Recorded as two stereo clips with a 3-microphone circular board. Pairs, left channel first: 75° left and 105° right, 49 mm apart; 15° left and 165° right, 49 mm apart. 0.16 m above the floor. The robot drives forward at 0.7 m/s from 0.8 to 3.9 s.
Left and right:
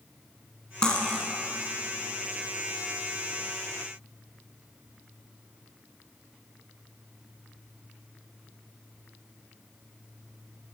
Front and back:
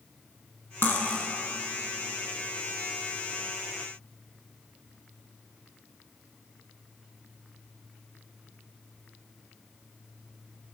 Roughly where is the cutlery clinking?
Ahead.